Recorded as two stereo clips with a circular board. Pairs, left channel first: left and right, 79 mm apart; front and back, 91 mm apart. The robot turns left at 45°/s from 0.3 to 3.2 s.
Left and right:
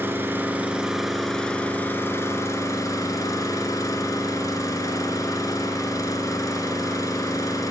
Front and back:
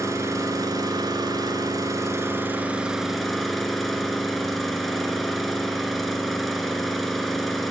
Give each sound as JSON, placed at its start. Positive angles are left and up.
{"t": 0.0, "sound": "an engine running", "azimuth_deg": -140, "distance_m": 1.4}